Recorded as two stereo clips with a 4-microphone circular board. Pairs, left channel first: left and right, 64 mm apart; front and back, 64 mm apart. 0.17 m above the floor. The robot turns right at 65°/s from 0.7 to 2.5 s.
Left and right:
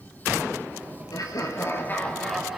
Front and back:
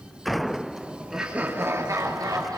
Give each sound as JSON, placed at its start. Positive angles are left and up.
{"t": 1.1, "sound": "laughter", "azimuth_deg": 95, "distance_m": 4.0}